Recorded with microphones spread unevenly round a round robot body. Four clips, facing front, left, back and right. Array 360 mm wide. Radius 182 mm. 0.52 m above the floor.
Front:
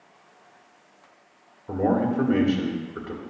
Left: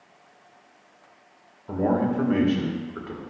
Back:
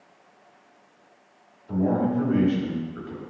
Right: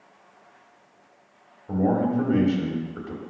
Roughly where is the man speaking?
Ahead left.